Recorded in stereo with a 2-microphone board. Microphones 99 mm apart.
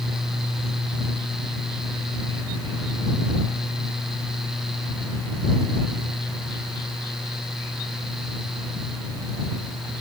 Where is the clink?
I don't hear a clink.